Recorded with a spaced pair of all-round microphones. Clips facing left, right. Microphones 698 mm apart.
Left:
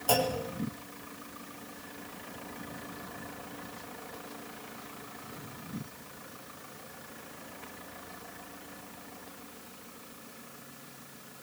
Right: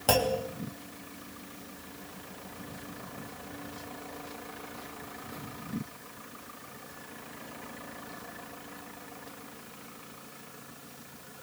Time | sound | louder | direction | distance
0.1 | a clunk | right 2 dB | 80° right | 3.5 m